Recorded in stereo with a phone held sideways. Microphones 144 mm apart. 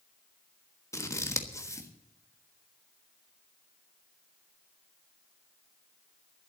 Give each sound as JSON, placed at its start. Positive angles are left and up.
{"t": 0.9, "sound": "scissors", "side_deg": 20, "distance_m": 1.3}